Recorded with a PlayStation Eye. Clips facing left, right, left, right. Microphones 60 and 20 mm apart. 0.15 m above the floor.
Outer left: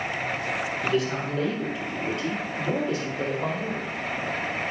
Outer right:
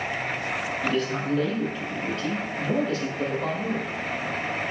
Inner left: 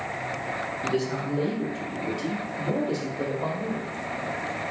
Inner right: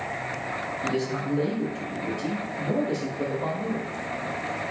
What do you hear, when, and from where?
0.8 s a man speaking: 5° left (ahead or behind), 3.5 m; by 3.9 s 20° left (ahead or behind), 4.5 m